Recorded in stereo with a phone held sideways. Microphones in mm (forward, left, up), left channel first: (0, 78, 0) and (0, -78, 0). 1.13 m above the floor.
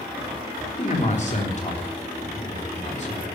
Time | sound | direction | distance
0.8 | a man speaking | 45° left (ahead or behind) | 3.5 m